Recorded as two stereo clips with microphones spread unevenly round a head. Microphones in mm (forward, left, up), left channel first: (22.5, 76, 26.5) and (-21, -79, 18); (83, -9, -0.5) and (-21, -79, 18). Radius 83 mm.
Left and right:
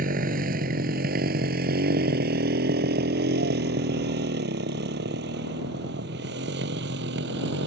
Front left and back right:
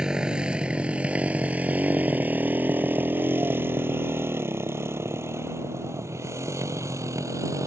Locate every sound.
0.0 s a motorcycle: 65° right; by 7.7 s 80° right